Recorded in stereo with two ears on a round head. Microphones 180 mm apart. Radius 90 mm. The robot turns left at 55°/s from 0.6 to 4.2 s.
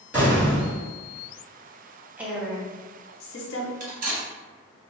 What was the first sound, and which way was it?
An explosion, 10° right (ahead or behind).